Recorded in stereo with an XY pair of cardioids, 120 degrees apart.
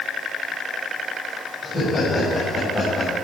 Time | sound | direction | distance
1.6 | laughter | 30° left | 5.5 m